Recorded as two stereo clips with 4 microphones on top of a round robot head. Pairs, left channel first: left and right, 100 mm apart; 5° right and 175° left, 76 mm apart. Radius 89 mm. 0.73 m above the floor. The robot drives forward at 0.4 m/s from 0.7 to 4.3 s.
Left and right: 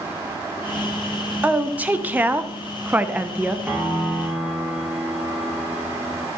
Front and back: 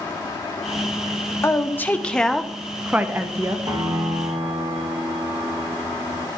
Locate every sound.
1.4 s a woman speaking: 25° right, 0.7 m; by 3.6 s 160° right, 0.8 m
3.7 s a piano: 165° right, 1.4 m; by 6.3 s 170° right, 1.6 m